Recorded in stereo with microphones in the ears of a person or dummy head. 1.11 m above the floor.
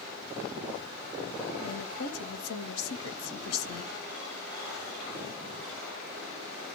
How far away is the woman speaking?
About 0.9 m.